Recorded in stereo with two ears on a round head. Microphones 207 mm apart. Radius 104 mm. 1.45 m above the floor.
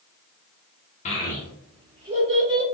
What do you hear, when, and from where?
1.1 s a child speaking: 30° left (ahead or behind), 0.5 m; by 2.6 s 40° right (ahead or behind), 1.1 m